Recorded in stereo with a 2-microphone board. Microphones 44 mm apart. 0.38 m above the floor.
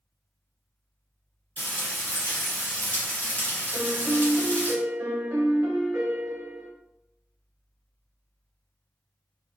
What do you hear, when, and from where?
1.6 s frying: 40° left (ahead or behind), 1.9 m
3.7 s a piano: 60° right (ahead or behind), 1.2 m